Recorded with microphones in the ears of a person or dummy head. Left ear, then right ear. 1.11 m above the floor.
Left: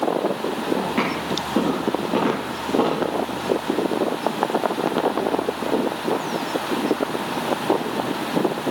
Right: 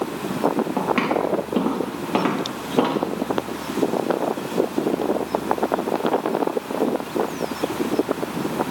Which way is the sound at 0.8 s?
40° right (ahead or behind).